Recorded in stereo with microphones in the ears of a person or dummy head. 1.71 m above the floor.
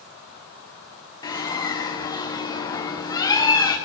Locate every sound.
1.2 s a bird: 10° left (ahead or behind), 1.1 m